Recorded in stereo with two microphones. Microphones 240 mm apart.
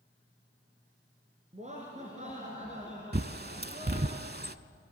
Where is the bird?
45° right (ahead or behind), 0.6 m.